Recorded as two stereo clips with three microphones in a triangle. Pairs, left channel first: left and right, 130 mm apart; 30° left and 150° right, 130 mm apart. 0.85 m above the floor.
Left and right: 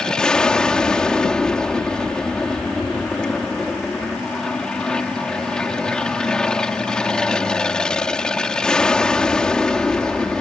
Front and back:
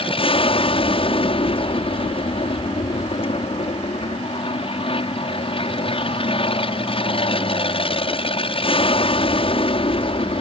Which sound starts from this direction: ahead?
An aircraft, at 0.0 s.